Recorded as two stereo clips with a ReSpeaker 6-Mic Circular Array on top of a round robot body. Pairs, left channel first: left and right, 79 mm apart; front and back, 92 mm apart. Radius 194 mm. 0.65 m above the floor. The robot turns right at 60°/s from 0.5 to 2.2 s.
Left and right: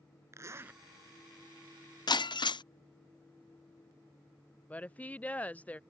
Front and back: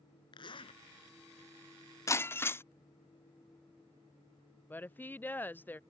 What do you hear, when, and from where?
0.3 s a zipper: 35° right; by 0.8 s 15° right
2.1 s breaking glass: 60° left; by 2.6 s 65° left
4.7 s a woman speaking: 40° left